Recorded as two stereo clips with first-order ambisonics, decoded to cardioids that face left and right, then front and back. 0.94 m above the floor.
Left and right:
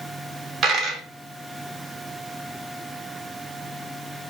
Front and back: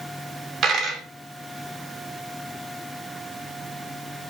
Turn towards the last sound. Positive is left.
turn(degrees=-135)